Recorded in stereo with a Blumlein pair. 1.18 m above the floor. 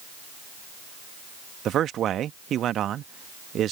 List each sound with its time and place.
1.6 s a man speaking: 30° right